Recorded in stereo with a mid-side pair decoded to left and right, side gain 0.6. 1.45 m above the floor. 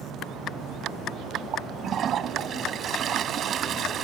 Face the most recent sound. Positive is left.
turn(degrees=-45)